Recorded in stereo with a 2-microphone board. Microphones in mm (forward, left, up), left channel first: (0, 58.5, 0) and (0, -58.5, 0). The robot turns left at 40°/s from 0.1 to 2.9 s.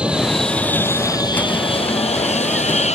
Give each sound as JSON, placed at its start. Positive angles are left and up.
{"t": 0.0, "sound": "an aircraft", "azimuth_deg": -170}